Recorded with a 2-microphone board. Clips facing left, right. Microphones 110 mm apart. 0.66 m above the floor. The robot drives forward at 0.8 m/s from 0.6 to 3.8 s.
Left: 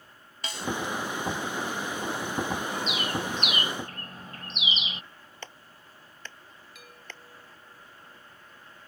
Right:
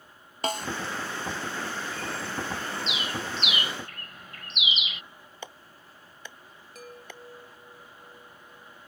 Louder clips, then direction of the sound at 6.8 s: Right 7 dB; 40° right (ahead or behind).